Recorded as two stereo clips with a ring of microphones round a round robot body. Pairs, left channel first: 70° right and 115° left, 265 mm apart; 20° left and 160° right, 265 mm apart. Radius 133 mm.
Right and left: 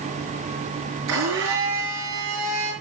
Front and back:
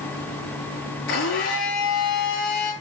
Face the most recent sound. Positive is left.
turn(degrees=70)